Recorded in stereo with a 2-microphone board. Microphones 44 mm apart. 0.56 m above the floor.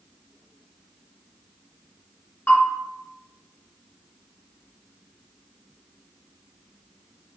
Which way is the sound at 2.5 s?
55° left (ahead or behind).